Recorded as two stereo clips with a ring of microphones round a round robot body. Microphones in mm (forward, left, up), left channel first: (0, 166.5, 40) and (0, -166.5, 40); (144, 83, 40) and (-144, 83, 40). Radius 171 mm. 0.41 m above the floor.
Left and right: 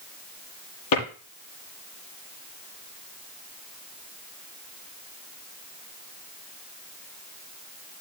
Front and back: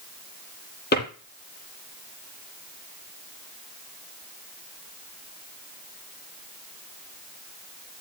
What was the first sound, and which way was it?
A drawer, 55° left.